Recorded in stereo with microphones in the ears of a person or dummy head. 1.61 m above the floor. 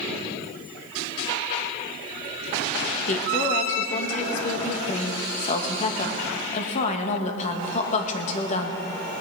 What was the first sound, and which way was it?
A woman speaking, 35° left (ahead or behind).